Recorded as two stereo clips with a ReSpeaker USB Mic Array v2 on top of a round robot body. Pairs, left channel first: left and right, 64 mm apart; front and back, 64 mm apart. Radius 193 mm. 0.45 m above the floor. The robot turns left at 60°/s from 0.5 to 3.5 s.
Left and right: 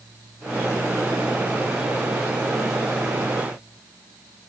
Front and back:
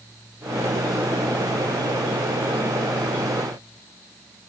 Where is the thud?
No thud in this recording.